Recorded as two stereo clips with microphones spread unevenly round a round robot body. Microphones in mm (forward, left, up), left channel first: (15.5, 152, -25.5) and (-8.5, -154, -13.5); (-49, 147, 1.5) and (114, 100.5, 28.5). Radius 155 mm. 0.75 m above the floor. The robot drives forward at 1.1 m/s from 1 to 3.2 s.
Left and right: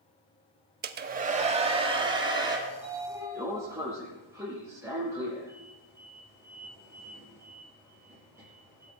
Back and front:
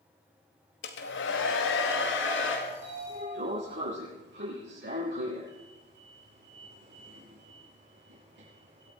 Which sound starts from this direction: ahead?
A sliding door, at 2.7 s.